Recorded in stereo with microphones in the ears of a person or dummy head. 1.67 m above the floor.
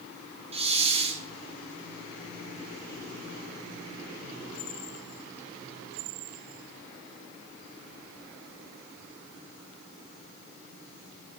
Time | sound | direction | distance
0.5 | a hiss | 35° right (ahead or behind) | 0.8 m